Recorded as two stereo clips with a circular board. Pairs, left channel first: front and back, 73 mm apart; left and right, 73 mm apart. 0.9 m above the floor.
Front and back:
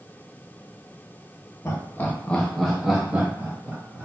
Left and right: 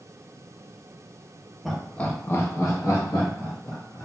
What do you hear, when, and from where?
1.6 s laughter: straight ahead, 0.7 m; by 4.0 s 115° left, 1.6 m